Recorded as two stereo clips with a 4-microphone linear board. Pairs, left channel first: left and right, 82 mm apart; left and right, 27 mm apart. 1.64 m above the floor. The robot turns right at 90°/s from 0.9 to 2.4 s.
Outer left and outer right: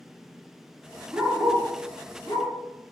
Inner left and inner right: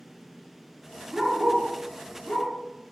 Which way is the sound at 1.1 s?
15° right (ahead or behind).